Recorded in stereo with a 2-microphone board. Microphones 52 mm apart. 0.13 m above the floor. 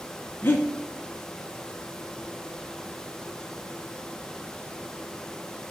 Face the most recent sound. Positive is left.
turn(degrees=45)  # may be behind; listen again after turning